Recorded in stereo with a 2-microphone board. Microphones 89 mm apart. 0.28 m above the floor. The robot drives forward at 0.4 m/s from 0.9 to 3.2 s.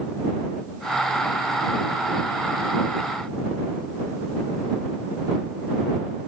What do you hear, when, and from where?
Only background noise.